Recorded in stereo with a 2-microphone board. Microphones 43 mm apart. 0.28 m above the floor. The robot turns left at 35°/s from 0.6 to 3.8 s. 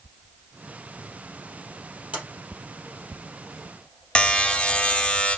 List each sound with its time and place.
2.1 s a sliding door: 25° right (ahead or behind), 3.5 m; by 2.2 s 30° right (ahead or behind), 3.5 m
4.2 s a buzzer: 25° left (ahead or behind), 1.0 m